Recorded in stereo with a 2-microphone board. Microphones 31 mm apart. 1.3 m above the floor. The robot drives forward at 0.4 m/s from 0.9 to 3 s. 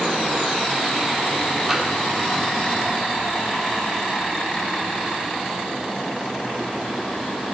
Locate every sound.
1.7 s tapping: 5° right (ahead or behind), 4 m